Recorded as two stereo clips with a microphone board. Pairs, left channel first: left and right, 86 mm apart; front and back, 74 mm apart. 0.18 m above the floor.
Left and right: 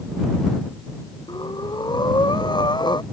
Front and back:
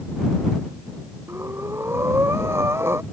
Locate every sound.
1.3 s breathing: 125° left